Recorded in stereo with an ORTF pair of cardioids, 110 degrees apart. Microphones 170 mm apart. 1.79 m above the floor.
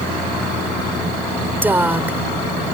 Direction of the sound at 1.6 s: 10° right.